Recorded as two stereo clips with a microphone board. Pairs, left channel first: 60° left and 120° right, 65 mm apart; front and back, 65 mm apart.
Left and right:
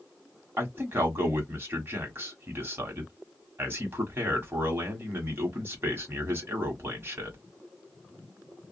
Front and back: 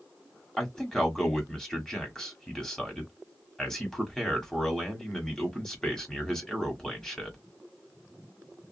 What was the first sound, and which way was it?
A man speaking, 80° right.